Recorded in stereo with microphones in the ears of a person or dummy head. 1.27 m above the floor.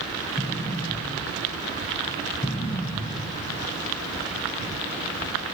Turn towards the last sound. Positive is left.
turn(degrees=15)  # may be behind; listen again after turning